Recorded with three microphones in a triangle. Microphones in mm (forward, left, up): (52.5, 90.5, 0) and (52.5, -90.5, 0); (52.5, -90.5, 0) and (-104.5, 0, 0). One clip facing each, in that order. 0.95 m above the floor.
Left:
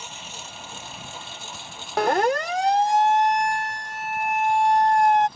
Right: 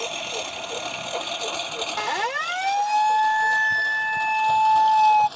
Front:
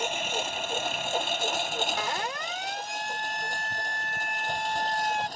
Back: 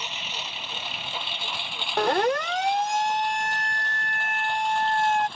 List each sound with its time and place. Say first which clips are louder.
0.0 s a lawn mower: right 11 dB, front 8 dB; 70° right; by 5.4 s 80° right
2.0 s a siren: left 11 dB, back 11 dB; 120° left; by 5.3 s 175° right